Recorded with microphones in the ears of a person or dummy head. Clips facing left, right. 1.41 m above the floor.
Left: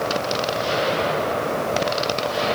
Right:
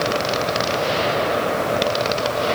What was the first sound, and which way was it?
Only background noise.